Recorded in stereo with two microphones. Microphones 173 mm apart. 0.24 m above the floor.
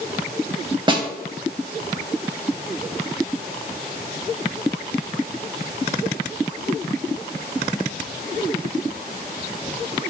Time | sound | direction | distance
0.9 | a snare drum | 30° right (ahead or behind) | 0.6 m